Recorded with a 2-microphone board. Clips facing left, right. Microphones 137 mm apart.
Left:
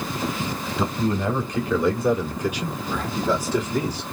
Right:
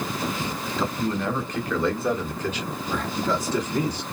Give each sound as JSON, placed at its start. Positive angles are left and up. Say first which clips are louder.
{"t": 0.8, "sound": "a man speaking", "louder": "left 3 dB", "side_deg": 15, "distance_m": 1.4}